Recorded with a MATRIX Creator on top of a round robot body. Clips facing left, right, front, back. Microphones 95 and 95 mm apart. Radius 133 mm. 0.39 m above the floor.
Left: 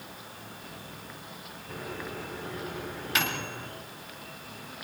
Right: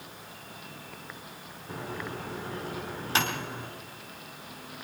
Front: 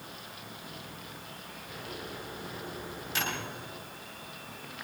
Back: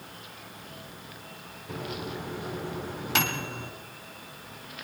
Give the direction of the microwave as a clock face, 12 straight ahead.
5 o'clock.